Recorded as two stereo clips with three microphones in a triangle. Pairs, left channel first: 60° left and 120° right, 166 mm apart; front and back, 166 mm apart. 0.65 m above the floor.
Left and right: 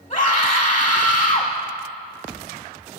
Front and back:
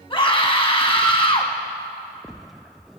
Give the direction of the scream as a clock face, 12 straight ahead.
11 o'clock.